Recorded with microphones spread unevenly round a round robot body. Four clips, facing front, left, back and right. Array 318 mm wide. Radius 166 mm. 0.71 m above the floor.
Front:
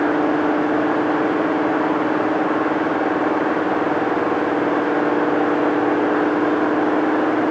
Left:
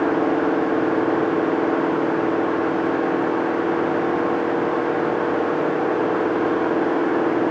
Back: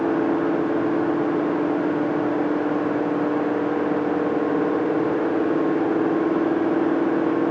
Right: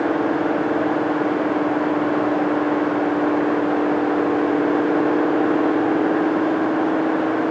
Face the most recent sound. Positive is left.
No sound to turn to.